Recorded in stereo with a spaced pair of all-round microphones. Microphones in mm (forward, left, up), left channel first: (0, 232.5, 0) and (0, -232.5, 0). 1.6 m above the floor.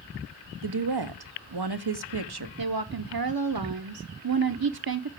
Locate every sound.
0.6 s a woman speaking: 55° right (ahead or behind), 0.8 m
2.6 s a woman speaking: 50° right (ahead or behind), 0.7 m